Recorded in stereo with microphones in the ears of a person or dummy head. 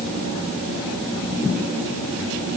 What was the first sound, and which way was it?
Only background noise.